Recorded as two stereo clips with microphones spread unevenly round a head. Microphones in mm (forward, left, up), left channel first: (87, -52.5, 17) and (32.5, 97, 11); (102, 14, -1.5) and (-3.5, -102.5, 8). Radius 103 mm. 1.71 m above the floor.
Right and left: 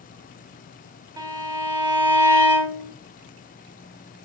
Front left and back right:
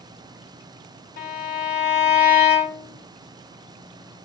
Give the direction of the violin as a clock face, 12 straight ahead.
10 o'clock.